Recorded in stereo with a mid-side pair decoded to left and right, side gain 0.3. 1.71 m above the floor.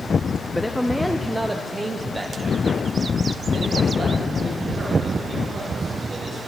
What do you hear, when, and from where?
0.5 s a man speaking: 10° left, 0.7 m; by 6.4 s 65° right, 3 m